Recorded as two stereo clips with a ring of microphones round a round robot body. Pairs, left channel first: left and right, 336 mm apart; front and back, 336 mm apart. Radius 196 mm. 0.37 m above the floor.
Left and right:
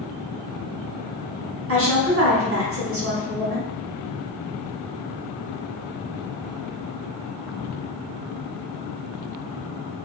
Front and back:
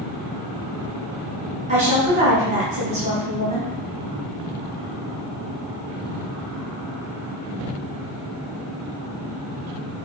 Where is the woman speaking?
120° right, 1.1 m.